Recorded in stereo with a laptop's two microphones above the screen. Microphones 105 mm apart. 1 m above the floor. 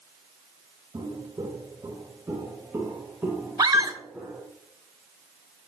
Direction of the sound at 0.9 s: 50° right (ahead or behind).